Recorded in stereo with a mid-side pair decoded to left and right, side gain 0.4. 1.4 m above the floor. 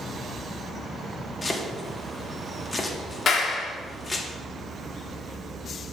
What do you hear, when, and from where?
1.4 s chopping: 35° left, 1.1 m
3.3 s a clap: 60° left, 1.1 m